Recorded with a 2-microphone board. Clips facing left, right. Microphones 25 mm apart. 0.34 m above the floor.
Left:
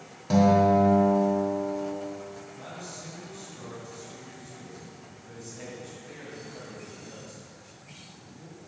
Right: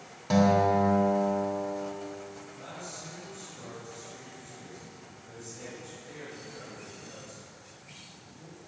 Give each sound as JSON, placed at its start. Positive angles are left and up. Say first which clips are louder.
{"t": 0.3, "sound": "a guitar", "louder": "left 3 dB", "side_deg": -10, "distance_m": 1.0}
{"t": 2.6, "sound": "a man speaking", "louder": "left 1 dB", "side_deg": 25, "distance_m": 1.9}